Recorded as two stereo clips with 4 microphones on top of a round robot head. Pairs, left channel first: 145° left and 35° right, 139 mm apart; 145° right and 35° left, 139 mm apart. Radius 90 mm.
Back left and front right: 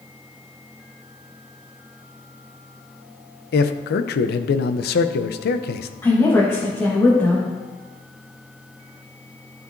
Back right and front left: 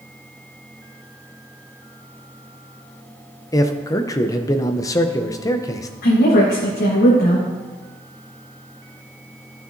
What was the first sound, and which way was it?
A man speaking, 150° left.